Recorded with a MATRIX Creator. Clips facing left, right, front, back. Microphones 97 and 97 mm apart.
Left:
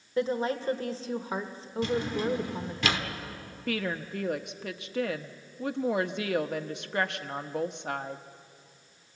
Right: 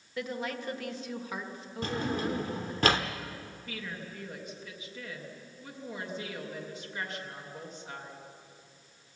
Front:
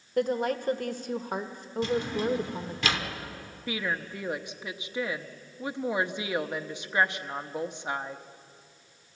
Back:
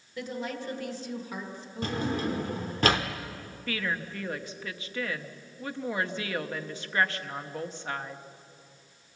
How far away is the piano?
I don't hear a piano.